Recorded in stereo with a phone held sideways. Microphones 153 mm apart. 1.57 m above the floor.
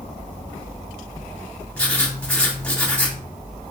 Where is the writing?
10° left (ahead or behind), 0.8 m.